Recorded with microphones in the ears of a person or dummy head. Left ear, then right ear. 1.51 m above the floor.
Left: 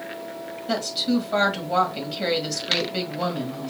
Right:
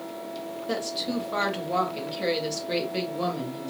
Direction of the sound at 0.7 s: 10° left (ahead or behind).